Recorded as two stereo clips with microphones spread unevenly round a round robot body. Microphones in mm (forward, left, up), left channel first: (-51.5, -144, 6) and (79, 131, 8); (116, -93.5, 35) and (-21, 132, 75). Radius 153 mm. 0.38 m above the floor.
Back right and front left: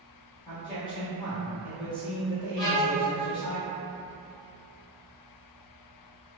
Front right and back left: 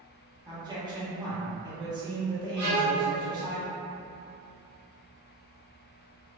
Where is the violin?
120° left, 1.9 m.